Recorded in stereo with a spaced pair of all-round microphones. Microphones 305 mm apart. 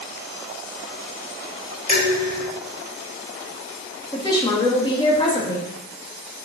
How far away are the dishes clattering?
About 4 m.